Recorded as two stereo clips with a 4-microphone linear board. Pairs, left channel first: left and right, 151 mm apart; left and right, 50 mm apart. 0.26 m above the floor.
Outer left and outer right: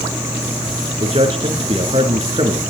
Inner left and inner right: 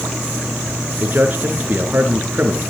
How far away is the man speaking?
About 4.5 m.